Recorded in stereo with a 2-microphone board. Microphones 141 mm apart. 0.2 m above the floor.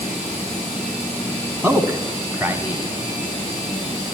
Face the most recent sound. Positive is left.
turn(degrees=-15)  # may be behind; listen again after turning